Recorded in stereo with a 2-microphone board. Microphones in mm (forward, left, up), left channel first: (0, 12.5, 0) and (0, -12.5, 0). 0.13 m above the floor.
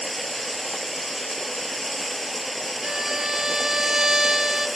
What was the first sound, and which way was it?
Running water, 5° left (ahead or behind).